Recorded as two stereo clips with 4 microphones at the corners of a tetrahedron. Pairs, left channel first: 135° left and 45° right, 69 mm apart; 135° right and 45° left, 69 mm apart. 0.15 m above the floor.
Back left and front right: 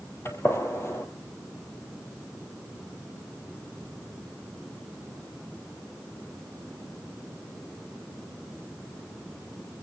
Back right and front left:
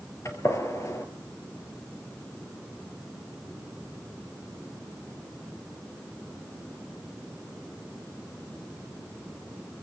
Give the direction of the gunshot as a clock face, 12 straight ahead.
6 o'clock.